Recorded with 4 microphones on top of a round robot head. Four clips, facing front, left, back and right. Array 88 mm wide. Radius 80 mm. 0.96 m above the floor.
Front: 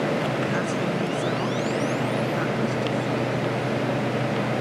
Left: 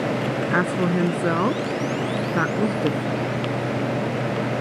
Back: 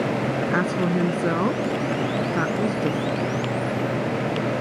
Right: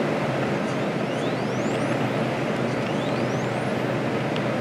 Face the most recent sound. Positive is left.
turn(degrees=110)